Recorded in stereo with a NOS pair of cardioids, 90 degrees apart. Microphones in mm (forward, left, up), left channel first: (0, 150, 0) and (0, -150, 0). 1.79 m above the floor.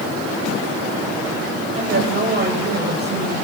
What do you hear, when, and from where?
1.7 s a woman speaking: 35° right, 9.5 m